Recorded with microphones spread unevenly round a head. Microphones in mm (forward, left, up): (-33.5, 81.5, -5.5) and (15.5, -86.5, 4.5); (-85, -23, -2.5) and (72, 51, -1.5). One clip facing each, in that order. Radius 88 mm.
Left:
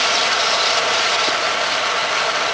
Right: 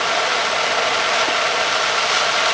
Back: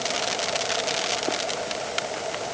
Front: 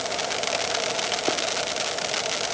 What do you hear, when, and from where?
Only background noise.